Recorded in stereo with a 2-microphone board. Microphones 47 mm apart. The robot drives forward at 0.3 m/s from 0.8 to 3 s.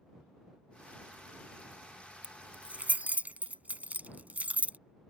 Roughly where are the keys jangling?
Right.